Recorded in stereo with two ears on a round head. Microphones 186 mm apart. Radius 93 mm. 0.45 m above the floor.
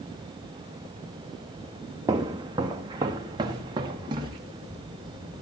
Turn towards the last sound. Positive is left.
turn(degrees=-20)  # may be behind; listen again after turning